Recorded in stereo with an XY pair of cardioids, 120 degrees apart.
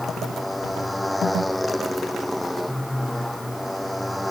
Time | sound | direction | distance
0.0 | a motorcycle | 5° left | ?